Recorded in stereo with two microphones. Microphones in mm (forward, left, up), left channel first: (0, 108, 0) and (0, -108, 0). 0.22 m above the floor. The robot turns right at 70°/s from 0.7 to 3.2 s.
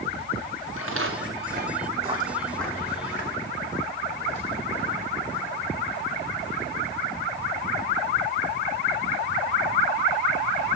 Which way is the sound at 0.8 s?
85° right.